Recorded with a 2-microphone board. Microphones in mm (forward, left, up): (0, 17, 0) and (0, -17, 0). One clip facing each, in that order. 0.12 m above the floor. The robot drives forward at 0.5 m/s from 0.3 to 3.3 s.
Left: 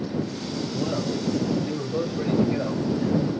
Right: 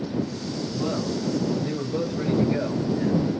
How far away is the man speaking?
About 1.9 m.